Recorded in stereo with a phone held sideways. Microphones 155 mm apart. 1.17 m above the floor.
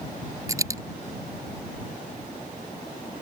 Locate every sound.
0.5 s a dropped coin: 20° right (ahead or behind)